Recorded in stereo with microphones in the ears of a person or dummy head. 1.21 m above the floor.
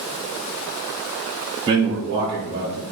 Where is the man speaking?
25° right (ahead or behind), 0.6 m; by 2.8 s 20° right (ahead or behind), 0.8 m.